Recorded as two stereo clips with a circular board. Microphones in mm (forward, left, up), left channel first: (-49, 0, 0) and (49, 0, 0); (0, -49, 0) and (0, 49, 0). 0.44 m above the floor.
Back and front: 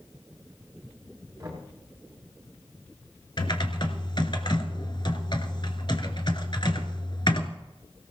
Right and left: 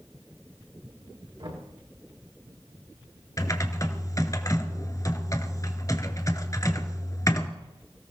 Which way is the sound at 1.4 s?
60° left.